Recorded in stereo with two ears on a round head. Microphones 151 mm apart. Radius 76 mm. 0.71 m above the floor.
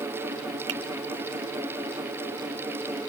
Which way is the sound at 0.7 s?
75° right (ahead or behind).